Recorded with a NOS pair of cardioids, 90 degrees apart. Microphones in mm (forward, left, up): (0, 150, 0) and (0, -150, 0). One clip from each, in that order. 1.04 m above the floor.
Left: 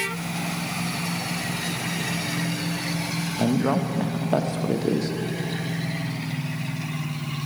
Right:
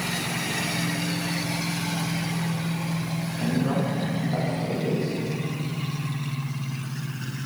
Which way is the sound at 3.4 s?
60° left.